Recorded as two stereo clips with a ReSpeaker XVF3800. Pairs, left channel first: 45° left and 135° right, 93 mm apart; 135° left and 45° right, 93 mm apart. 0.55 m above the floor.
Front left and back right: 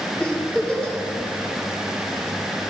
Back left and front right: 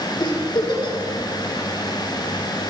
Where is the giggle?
125° left, 2 m.